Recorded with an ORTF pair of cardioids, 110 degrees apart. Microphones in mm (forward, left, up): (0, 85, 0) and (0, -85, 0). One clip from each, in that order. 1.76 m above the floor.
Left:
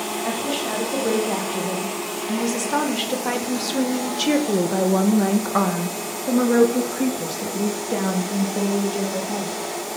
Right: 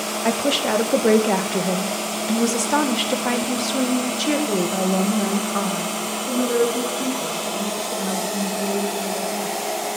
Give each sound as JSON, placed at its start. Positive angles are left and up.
{"t": 0.2, "sound": "a woman speaking", "azimuth_deg": -55, "distance_m": 2.5}